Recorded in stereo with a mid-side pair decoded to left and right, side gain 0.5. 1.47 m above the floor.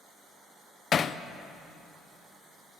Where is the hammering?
45° left, 0.5 m.